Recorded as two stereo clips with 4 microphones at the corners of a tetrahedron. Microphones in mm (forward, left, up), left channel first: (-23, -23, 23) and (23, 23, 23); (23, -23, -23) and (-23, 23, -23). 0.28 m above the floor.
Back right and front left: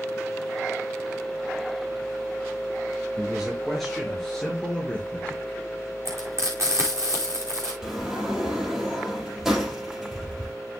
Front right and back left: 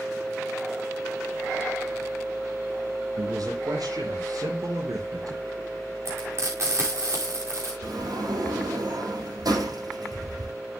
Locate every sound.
3.2 s a man speaking: 130° left, 5.5 m; by 5.6 s 150° left, 2.5 m
6.0 s frying: 90° left, 5.5 m
7.8 s a sliding door: 130° left, 4.5 m